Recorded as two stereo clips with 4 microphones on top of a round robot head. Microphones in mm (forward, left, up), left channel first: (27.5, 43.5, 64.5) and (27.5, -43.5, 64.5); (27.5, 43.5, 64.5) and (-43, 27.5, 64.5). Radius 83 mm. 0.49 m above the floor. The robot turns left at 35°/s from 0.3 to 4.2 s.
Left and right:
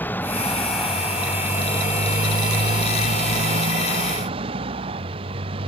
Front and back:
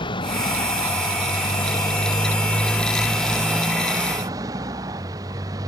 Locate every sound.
0.0 s a motorcycle: 20° left; by 5.7 s 120° right